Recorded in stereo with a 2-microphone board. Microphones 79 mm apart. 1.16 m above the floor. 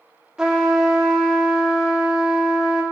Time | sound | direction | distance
0.4 | a trumpet | 10° right (ahead or behind) | 0.8 m